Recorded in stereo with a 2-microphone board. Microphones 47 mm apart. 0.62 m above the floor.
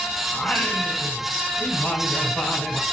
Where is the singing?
20° left (ahead or behind), 5.5 m.